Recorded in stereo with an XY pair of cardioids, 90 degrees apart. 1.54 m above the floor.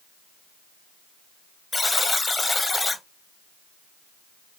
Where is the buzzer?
20° left, 1.0 m.